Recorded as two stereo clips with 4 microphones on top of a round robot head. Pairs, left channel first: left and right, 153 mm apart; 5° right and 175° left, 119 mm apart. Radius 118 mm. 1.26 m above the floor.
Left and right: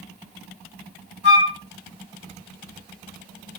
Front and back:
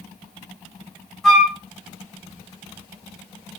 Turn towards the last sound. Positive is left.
turn(degrees=80)